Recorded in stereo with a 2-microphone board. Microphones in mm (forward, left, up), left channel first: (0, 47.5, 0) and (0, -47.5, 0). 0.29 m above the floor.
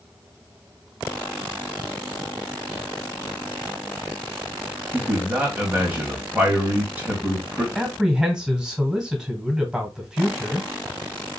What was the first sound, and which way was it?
A man speaking, 20° right (ahead or behind).